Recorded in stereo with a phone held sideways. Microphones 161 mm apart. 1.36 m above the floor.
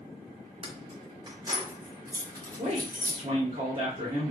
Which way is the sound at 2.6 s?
45° right (ahead or behind).